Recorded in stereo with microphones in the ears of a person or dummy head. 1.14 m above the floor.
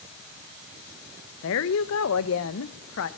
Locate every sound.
1.4 s a woman speaking: 75° left (ahead or behind), 0.9 m